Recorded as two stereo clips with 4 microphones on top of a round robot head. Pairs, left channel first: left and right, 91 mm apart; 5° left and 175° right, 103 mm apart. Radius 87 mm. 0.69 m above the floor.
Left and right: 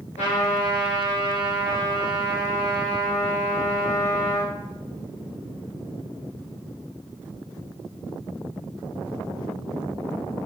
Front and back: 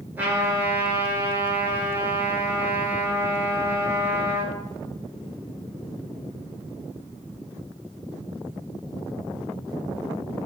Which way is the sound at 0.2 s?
115° left.